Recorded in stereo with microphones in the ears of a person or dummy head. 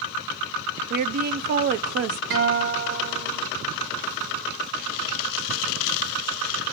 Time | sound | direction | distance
0.9 | a woman speaking | 50° right (ahead or behind) | 0.6 m
2.3 | a guitar | 40° right (ahead or behind) | 2 m